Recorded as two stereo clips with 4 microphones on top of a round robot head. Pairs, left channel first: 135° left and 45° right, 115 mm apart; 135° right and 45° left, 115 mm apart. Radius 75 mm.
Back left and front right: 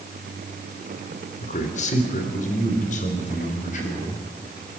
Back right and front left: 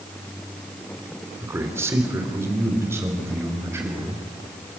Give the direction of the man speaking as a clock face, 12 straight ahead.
8 o'clock.